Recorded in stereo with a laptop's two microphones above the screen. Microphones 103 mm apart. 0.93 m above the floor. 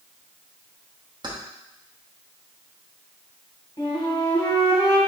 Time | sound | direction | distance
1.2 | keys jangling | 40° right (ahead or behind) | 0.7 m
3.8 | a flute | 50° left (ahead or behind) | 1.7 m